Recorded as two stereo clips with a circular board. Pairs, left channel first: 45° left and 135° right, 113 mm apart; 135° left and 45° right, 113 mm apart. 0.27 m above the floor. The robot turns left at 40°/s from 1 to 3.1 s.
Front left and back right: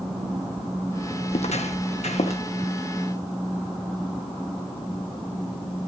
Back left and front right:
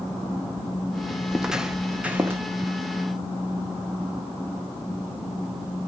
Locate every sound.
1.3 s footsteps: 40° left, 0.8 m; by 2.4 s 25° left, 1.6 m